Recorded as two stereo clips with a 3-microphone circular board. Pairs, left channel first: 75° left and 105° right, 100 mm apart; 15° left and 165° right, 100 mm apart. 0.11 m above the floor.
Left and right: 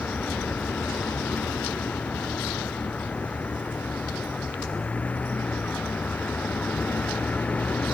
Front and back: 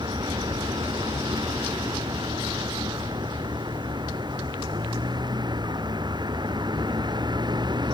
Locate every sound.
0.0 s a vehicle: 150° left